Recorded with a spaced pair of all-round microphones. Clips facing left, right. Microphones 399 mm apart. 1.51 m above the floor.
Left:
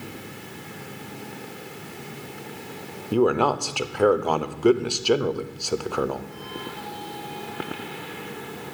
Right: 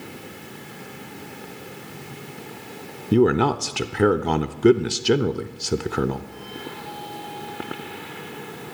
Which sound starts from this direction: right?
A man speaking, at 3.1 s.